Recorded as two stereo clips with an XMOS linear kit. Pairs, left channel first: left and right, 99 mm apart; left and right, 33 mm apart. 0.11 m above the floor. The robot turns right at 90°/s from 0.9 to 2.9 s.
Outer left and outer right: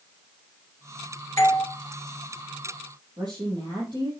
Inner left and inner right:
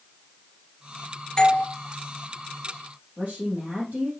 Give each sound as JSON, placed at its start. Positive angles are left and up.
{"t": 1.4, "sound": "a doorbell", "side_deg": 25, "distance_m": 2.5}
{"t": 3.2, "sound": "a woman speaking", "side_deg": -45, "distance_m": 4.0}